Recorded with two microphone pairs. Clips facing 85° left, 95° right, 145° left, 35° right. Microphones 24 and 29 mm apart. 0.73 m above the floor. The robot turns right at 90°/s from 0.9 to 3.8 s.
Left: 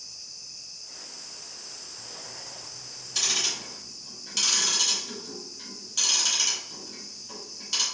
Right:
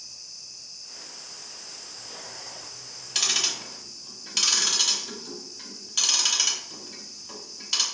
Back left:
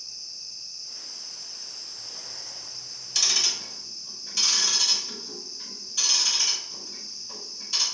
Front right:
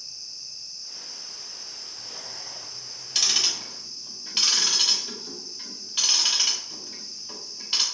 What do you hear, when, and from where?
3.1 s ticking: 100° right, 0.8 m; by 7.8 s 40° right, 0.8 m